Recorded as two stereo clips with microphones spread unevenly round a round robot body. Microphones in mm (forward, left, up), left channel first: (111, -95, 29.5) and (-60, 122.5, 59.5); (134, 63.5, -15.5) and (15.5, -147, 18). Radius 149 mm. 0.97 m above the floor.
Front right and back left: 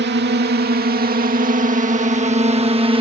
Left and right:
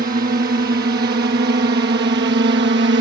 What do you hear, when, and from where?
0.0 s a drone: straight behind; by 3.0 s 160° right